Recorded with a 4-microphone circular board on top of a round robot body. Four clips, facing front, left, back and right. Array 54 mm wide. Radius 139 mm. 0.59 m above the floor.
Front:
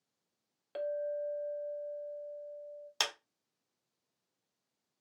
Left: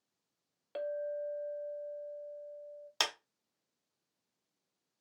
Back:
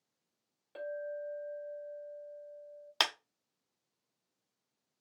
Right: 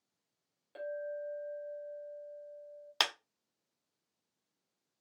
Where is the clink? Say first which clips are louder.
Left 3 dB, front 4 dB; 50° left, 0.9 m.